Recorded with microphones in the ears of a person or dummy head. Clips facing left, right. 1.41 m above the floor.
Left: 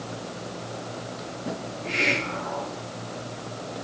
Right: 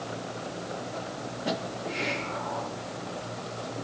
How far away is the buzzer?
I don't hear a buzzer.